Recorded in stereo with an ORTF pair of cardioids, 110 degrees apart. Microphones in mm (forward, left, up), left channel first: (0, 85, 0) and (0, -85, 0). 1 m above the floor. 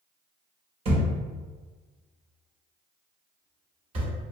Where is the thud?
35° right, 1.0 m.